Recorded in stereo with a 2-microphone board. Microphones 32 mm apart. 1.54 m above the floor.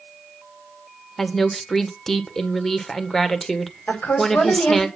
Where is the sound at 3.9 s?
75° left (ahead or behind), 5 m.